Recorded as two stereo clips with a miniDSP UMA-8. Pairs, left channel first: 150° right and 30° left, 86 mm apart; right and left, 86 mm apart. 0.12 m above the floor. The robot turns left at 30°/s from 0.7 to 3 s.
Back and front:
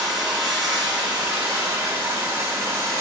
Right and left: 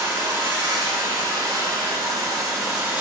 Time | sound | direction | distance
0.0 | running water | 120° left | 1.8 m